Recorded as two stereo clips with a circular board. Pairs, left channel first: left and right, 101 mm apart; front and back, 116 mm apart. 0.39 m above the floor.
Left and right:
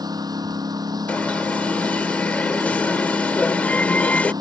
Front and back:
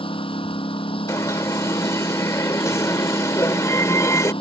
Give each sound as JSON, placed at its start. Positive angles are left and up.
{"t": 0.0, "sound": "a lawn mower", "azimuth_deg": -40}
{"t": 1.1, "sound": "an alarm", "azimuth_deg": 30}